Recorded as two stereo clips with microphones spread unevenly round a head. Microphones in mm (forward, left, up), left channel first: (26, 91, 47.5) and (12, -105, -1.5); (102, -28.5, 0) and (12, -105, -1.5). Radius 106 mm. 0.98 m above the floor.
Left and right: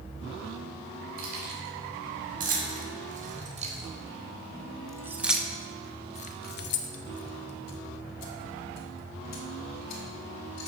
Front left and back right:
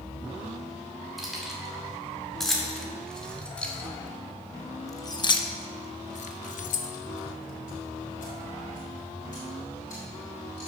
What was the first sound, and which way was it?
Keys jangling, 50° right.